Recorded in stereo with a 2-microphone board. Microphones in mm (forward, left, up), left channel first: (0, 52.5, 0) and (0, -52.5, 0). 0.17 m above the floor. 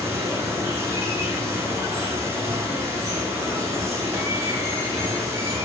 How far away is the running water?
About 0.8 m.